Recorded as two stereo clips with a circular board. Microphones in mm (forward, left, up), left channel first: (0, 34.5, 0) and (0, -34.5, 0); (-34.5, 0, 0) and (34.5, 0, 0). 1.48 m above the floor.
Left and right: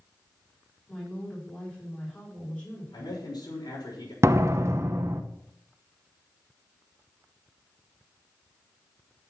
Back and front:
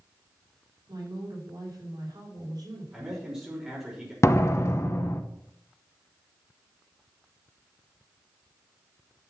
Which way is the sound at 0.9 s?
20° left.